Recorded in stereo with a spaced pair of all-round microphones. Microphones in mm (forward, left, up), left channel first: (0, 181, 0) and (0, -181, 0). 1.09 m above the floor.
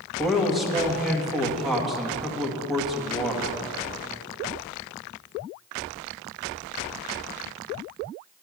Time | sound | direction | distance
0.2 | a man speaking | centre (ahead or behind) | 1.6 m